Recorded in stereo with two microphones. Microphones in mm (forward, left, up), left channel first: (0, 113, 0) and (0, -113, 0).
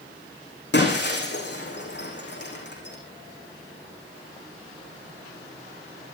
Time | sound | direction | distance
0.7 | breaking glass | 50° left (ahead or behind) | 5.5 m